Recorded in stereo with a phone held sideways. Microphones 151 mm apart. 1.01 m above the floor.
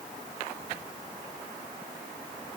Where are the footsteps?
No footsteps in this recording.